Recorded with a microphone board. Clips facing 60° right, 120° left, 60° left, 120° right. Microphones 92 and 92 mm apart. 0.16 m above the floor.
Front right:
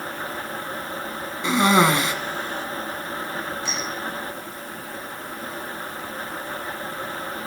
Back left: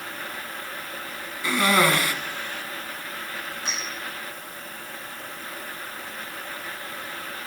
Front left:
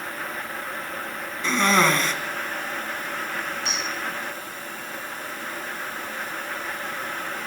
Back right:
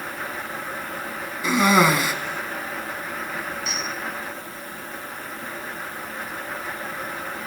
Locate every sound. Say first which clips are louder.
1.4 s a cough: front right 3 dB, back right 3 dB; 60° right, 1.4 m
3.6 s a clink: front right 3 dB, even; 75° left, 8 m